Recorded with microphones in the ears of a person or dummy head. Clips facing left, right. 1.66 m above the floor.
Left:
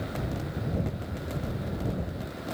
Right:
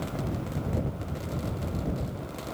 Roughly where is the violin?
No violin in this recording.